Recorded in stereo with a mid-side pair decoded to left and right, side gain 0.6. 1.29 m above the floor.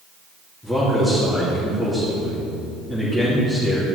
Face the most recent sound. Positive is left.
turn(degrees=-10)